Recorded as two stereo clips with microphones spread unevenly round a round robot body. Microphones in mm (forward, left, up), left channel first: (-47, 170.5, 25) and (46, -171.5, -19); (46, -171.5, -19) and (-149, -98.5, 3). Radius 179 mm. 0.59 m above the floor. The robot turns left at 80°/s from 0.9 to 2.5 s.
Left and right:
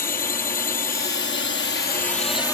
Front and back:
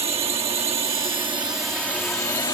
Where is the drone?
150° left; by 2.5 s 20° left.